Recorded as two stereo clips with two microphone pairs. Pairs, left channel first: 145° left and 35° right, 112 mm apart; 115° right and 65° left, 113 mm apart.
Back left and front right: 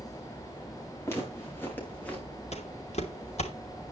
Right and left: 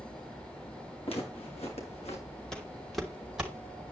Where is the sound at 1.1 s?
145° right, 5.5 m; by 2.3 s 135° right, 5.5 m.